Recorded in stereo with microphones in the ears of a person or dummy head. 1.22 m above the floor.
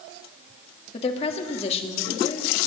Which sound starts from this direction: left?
A woman speaking, at 0.9 s.